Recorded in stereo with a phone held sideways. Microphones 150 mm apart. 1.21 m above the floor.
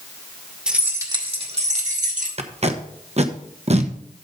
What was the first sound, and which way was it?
Keys jangling, 5° right (ahead or behind).